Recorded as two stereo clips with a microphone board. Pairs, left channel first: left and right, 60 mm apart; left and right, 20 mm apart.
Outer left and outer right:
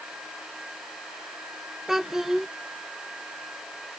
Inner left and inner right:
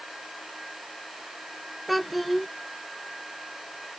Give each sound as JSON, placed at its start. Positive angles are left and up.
{"t": 1.9, "sound": "a child speaking", "side_deg": -5}